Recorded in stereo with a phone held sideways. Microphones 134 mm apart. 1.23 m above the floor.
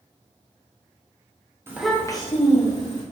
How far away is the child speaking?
About 0.8 m.